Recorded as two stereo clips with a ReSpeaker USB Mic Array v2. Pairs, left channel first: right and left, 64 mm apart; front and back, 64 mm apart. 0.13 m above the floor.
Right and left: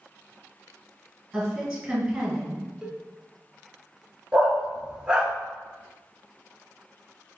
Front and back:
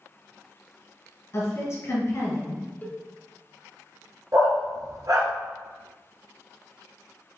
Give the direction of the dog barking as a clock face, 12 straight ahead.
7 o'clock.